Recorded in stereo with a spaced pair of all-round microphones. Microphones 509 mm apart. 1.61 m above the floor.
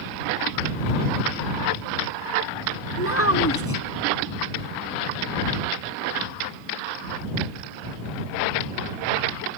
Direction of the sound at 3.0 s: 25° left (ahead or behind).